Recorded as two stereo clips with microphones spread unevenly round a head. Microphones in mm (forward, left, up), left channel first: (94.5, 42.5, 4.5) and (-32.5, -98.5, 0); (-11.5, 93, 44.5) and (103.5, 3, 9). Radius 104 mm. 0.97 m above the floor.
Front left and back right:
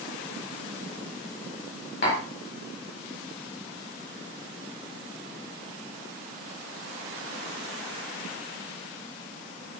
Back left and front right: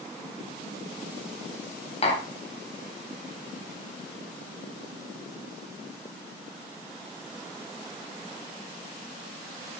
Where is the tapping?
95° left, 4.5 m.